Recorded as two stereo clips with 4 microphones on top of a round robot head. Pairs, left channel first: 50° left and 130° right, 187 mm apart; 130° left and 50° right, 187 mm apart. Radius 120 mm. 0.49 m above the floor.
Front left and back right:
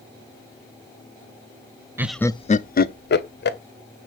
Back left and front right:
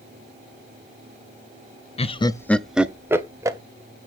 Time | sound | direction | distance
2.0 | laughter | 160° left | 0.8 m